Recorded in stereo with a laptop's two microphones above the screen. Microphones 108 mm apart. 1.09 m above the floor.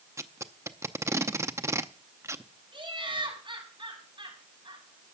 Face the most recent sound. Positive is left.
turn(degrees=-50)  # may be behind; listen again after turning